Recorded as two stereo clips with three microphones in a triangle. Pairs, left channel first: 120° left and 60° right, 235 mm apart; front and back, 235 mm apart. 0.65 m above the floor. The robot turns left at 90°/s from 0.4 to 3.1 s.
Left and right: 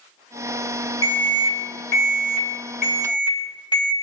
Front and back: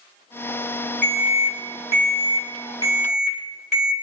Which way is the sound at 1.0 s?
125° right.